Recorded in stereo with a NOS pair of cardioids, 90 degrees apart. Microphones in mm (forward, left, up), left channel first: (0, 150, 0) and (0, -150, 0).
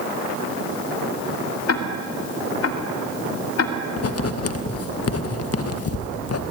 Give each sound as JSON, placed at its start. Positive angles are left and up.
{"t": 1.7, "sound": "ticking", "azimuth_deg": 55, "distance_m": 3.0}
{"t": 4.0, "sound": "writing", "azimuth_deg": 55, "distance_m": 1.9}